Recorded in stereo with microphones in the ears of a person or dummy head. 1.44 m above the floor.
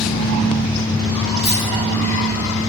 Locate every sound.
1.4 s a dropped coin: 5° right (ahead or behind), 1.2 m